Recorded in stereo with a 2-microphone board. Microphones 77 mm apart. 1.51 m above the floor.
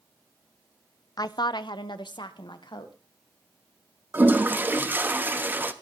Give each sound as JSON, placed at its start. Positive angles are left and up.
{"t": 1.2, "sound": "a woman speaking", "side_deg": 60, "distance_m": 0.6}
{"t": 4.1, "sound": "a toilet flushing", "side_deg": -25, "distance_m": 1.1}